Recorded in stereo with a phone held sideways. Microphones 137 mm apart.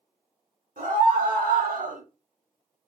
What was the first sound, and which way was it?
A scream, 90° right.